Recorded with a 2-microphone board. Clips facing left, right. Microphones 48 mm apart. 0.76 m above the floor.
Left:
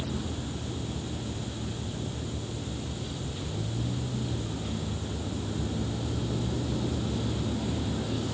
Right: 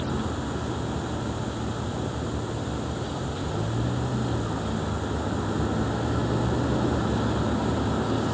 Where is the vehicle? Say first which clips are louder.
Right 6 dB; 60° right (ahead or behind).